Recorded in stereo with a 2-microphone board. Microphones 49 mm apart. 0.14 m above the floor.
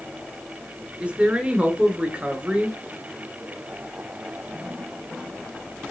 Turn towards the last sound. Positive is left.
turn(degrees=-25)  # may be behind; listen again after turning